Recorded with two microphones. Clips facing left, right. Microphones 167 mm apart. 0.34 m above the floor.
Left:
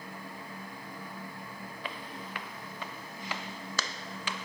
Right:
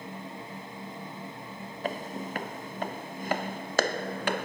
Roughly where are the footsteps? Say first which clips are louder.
Right 10 dB; right.